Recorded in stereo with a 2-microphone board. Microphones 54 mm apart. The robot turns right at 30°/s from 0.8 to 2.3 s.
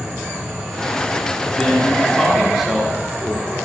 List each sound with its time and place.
1.6 s a man speaking: 20° left (ahead or behind), 1.6 m; by 3.5 s centre (ahead or behind), 1.6 m